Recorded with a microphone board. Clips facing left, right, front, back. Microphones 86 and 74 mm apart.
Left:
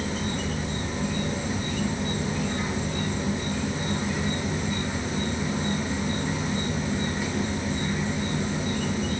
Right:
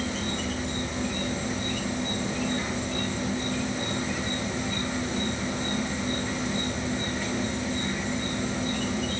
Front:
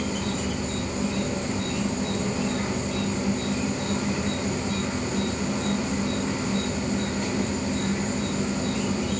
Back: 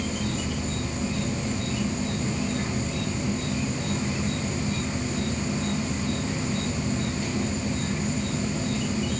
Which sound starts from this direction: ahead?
An insect, at 0.0 s.